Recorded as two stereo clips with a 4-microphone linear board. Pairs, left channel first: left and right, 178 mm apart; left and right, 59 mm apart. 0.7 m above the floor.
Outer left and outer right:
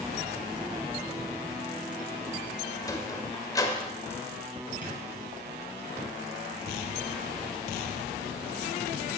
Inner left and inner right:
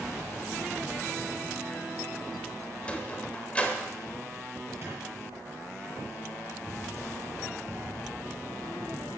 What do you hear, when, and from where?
2.8 s a sliding door: 20° left (ahead or behind), 1.5 m
4.8 s a squeak: 45° right (ahead or behind), 7 m